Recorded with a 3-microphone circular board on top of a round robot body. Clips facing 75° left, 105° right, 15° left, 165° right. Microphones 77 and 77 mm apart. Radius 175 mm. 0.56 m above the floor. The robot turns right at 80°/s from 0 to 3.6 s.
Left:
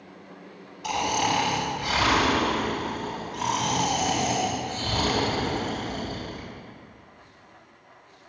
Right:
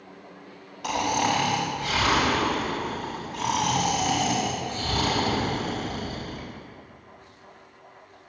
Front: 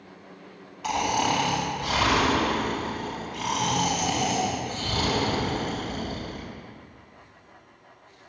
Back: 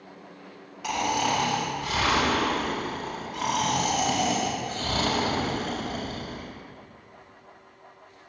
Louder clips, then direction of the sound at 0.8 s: Right 1 dB, front 1 dB; 80° right.